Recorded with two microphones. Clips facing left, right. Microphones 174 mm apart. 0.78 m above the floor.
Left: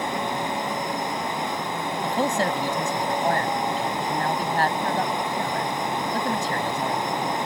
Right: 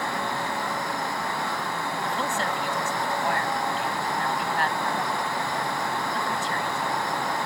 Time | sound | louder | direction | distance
2.0 | a man speaking | left 7 dB | 45° left (ahead or behind) | ?